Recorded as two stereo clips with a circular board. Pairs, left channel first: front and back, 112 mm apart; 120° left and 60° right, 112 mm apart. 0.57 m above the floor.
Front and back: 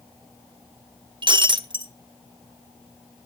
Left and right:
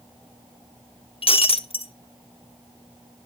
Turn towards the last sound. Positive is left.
turn(degrees=145)